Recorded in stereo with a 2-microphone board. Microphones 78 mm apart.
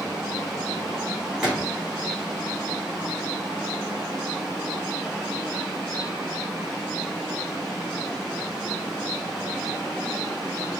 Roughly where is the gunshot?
Centre.